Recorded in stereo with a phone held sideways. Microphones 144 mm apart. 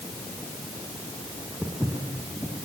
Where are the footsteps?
10° right (ahead or behind), 3 m.